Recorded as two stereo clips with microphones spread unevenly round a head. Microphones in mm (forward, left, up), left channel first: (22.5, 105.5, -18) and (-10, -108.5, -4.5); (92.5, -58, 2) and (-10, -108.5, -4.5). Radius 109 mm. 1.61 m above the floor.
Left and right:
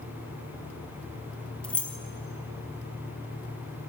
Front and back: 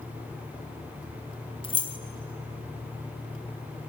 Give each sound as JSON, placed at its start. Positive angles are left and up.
{"t": 1.6, "sound": "keys jangling", "azimuth_deg": -5, "distance_m": 1.0}